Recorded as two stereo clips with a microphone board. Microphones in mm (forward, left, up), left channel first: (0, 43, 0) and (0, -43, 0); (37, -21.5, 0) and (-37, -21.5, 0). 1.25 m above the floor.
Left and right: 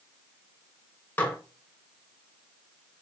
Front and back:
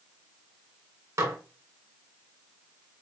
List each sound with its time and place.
1.2 s dishes clattering: 155° left, 0.7 m